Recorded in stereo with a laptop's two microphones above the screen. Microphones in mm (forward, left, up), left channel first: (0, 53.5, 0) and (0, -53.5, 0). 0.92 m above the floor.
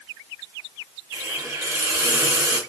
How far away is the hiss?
About 0.9 m.